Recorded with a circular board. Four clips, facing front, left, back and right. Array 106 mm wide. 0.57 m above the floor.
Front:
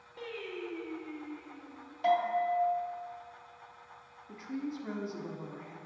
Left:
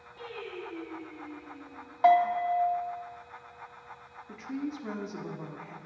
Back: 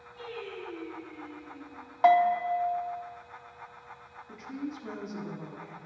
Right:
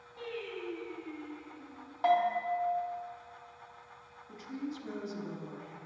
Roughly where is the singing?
Ahead.